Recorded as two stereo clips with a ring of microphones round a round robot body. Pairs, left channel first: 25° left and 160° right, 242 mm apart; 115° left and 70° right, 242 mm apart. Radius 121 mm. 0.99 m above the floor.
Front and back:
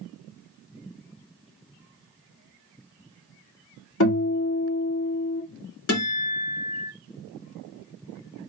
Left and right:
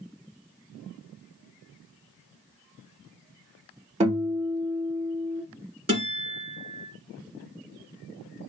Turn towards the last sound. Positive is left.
turn(degrees=0)